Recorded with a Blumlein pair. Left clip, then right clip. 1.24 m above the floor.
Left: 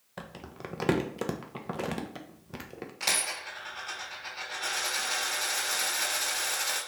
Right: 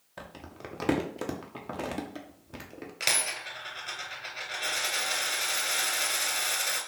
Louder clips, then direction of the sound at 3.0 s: Right 1 dB; 15° right.